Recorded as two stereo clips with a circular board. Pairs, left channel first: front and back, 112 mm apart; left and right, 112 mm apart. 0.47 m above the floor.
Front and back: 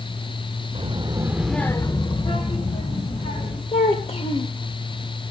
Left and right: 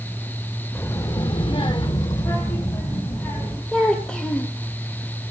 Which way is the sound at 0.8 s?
155° left.